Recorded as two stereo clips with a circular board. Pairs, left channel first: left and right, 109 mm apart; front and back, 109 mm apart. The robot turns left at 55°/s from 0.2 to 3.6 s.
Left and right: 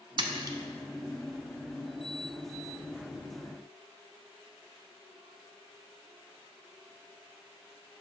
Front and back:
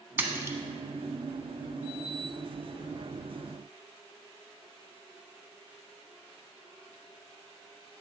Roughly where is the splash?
Behind right.